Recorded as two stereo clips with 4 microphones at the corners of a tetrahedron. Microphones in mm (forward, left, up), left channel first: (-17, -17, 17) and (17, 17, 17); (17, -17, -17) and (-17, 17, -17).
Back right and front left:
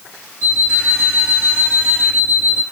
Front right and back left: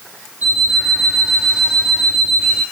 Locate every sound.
0.4 s an alarm clock: 175° right, 1.8 m